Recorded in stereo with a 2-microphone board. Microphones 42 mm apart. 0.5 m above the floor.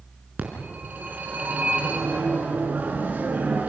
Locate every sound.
0.4 s a phone ringing: 45° right (ahead or behind), 4 m